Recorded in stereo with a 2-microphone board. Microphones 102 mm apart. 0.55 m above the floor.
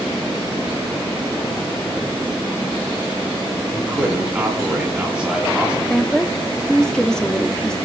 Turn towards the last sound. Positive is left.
turn(degrees=5)  # may be behind; listen again after turning